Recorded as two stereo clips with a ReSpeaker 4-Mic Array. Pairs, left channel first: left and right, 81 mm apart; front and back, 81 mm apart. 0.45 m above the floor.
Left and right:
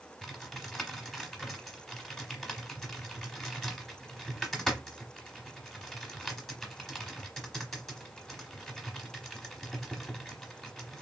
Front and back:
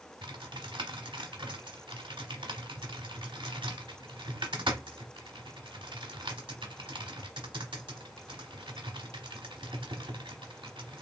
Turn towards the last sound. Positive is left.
turn(degrees=175)